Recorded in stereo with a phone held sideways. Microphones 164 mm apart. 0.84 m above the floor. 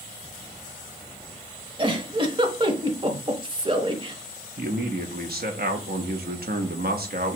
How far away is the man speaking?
About 0.9 m.